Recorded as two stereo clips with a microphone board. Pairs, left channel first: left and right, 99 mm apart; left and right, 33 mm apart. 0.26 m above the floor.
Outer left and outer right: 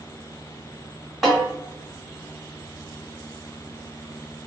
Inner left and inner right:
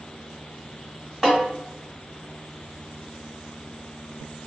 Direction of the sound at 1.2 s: Centre (ahead or behind).